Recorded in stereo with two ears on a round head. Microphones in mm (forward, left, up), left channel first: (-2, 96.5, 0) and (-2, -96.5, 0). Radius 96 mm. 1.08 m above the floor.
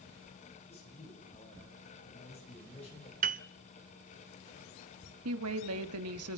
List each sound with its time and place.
0.7 s a man speaking: 30° left (ahead or behind), 6.5 m
3.2 s a piano: 40° right (ahead or behind), 0.5 m
5.2 s a woman speaking: 75° right (ahead or behind), 1.5 m